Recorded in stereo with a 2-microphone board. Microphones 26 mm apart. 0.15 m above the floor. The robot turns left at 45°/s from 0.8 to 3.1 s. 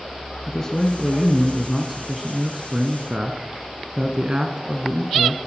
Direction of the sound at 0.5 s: 40° left.